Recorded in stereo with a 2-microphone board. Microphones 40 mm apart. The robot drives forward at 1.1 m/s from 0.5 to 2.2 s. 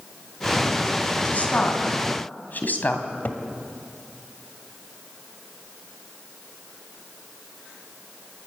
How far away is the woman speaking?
About 3.5 m.